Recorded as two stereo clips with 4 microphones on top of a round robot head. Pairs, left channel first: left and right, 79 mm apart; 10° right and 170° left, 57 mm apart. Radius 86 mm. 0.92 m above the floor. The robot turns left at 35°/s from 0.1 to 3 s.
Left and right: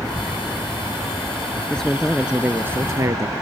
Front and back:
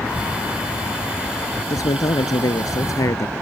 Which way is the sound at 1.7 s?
10° left.